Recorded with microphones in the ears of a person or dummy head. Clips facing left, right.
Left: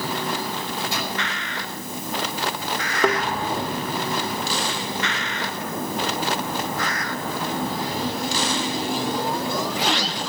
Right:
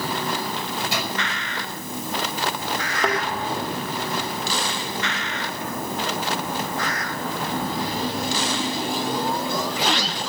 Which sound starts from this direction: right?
A microwave, at 0.6 s.